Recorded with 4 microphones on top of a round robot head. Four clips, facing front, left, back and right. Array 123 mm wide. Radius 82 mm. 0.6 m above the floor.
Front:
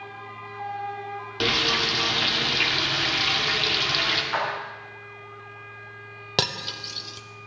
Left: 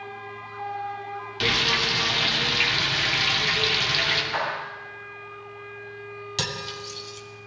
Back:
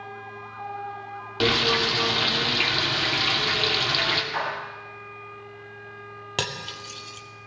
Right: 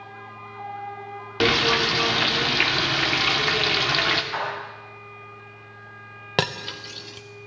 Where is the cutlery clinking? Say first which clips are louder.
Right 8 dB, front 3 dB; 70° right, 0.7 m.